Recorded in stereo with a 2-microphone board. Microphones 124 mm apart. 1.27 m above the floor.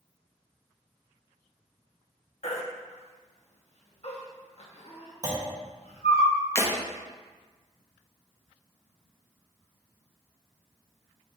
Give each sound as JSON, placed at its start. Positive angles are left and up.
{"t": 2.4, "sound": "a baby crying", "side_deg": 60, "distance_m": 1.0}
{"t": 5.2, "sound": "a clunk", "side_deg": -30, "distance_m": 1.1}
{"t": 6.5, "sound": "breaking glass", "side_deg": 25, "distance_m": 0.8}